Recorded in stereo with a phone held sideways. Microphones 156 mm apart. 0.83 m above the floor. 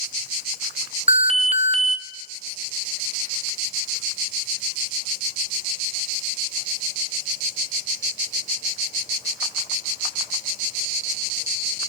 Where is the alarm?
40° right (ahead or behind), 0.5 m.